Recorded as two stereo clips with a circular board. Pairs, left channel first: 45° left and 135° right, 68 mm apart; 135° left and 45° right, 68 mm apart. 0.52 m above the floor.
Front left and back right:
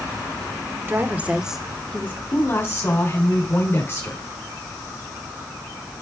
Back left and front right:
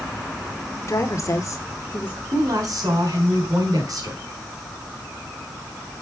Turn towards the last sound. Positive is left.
turn(degrees=-10)